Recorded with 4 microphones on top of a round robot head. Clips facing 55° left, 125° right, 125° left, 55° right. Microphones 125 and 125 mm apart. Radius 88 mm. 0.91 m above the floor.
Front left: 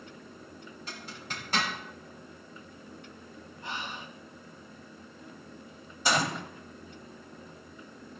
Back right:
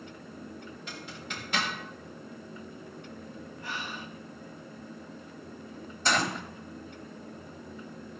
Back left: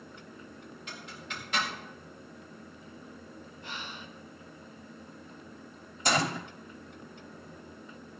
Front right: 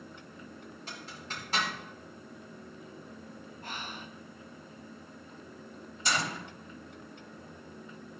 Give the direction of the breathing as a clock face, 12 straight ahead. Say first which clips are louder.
Front left 1 dB, front right 1 dB; 12 o'clock.